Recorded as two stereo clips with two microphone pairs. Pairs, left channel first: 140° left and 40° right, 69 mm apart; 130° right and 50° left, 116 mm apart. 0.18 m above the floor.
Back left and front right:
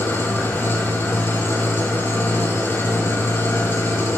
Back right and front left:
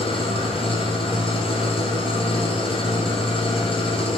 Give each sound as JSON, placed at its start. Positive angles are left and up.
{"t": 0.0, "sound": "an engine running", "azimuth_deg": -165, "distance_m": 2.0}